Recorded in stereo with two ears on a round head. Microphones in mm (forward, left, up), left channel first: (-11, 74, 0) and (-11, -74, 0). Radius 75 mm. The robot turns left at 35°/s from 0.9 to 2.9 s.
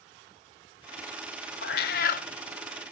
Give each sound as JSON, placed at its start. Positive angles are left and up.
{"t": 1.6, "sound": "a cat meowing", "side_deg": 65, "distance_m": 0.5}